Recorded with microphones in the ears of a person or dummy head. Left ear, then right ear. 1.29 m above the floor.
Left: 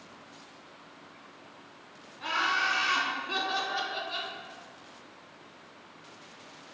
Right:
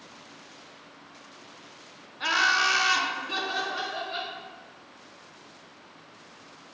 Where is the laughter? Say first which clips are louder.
Right 5 dB; 45° right (ahead or behind), 0.6 m; by 4.3 s 20° left (ahead or behind), 1.1 m.